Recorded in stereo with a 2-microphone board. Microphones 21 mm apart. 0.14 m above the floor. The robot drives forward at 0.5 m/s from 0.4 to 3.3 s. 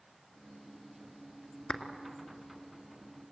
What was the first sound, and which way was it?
A clap, 45° left (ahead or behind).